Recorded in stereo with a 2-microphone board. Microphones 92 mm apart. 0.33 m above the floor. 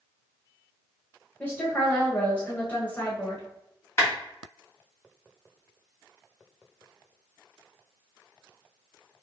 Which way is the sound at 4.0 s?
30° left (ahead or behind).